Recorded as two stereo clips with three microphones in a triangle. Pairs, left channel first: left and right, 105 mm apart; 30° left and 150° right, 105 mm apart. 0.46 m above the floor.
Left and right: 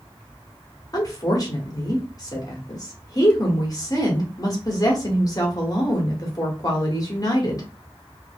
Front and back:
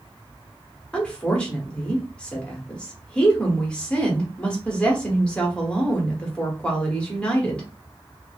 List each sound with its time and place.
0.9 s a woman speaking: 105° left, 0.9 m